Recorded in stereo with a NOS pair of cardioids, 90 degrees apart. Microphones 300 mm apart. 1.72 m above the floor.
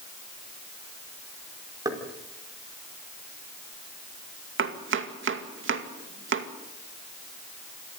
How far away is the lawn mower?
No lawn mower in this recording.